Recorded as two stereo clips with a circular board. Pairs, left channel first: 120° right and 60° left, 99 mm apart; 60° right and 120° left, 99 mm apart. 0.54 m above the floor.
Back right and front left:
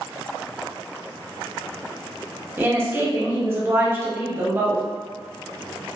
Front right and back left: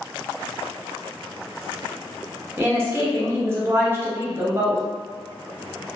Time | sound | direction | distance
2.6 | a woman speaking | 90° left | 0.7 m